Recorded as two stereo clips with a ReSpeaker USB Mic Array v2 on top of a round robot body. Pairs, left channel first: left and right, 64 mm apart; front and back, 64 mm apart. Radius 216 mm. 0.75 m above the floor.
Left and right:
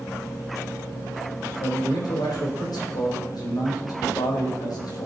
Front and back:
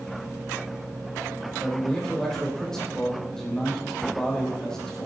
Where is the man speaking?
80° left, 3.5 m.